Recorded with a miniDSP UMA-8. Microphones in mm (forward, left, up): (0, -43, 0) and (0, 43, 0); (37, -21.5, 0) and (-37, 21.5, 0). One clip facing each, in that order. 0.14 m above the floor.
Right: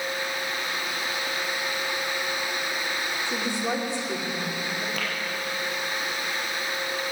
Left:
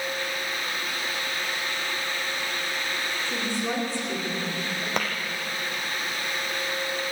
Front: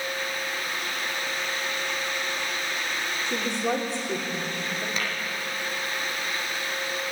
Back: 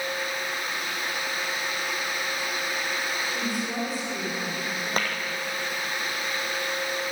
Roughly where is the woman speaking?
Ahead.